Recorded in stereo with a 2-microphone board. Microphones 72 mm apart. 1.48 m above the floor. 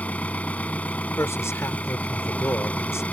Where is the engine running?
20° left (ahead or behind).